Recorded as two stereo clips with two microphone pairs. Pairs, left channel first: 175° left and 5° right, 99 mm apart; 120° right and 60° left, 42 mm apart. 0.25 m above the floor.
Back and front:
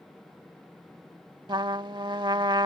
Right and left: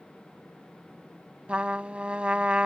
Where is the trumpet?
10° left.